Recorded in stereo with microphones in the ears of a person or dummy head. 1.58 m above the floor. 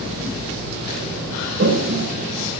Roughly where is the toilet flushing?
Right.